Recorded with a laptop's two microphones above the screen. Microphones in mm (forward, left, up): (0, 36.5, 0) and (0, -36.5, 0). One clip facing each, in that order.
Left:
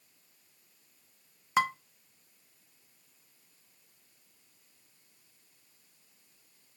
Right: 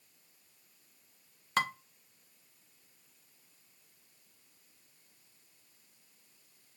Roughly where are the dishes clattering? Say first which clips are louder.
Left 4 dB; centre.